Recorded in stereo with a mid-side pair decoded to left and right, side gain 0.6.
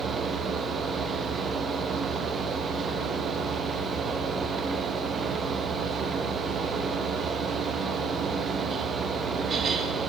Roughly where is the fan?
Ahead right.